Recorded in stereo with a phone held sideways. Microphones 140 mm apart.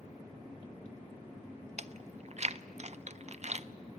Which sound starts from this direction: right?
Chewing, at 1.8 s.